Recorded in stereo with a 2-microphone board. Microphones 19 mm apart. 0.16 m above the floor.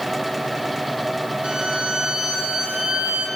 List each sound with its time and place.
1.4 s a violin: 60° right (ahead or behind), 6.5 m